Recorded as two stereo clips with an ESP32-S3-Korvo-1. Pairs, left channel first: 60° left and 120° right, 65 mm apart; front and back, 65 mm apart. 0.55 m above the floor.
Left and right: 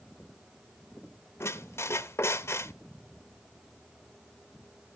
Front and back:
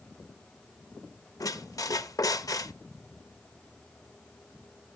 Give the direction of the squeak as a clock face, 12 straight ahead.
11 o'clock.